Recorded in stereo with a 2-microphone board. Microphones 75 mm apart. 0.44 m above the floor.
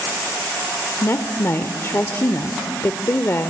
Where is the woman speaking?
35° left (ahead or behind), 1.1 m.